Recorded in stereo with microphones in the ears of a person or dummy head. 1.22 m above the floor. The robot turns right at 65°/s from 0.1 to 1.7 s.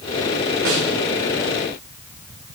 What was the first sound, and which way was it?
A snare drum, 55° right (ahead or behind).